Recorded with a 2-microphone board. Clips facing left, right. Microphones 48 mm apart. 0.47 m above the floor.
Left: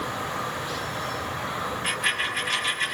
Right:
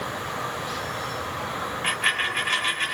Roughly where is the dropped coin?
Right.